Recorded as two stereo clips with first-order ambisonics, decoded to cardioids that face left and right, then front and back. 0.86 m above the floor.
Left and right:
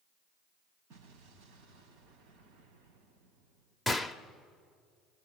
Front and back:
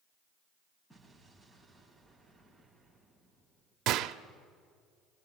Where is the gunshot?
175° right, 0.7 m.